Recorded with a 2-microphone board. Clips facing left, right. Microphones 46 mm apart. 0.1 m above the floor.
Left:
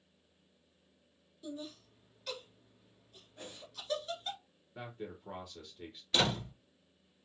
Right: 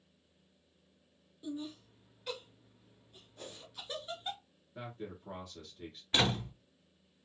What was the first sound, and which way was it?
Laughter, 15° right (ahead or behind).